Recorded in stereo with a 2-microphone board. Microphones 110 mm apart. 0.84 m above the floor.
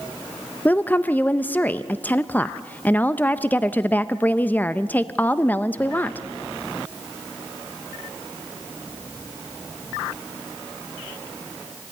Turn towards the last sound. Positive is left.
turn(degrees=15)  # may be behind; listen again after turning